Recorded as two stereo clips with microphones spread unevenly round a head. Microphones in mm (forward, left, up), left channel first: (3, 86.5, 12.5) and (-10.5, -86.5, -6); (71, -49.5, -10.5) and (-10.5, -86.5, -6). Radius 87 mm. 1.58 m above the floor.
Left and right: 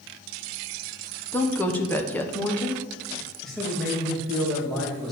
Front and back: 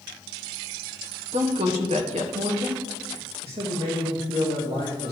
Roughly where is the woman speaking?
Behind.